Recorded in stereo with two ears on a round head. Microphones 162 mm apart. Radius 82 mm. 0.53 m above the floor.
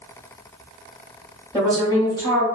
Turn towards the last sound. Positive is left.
turn(degrees=20)  # may be behind; listen again after turning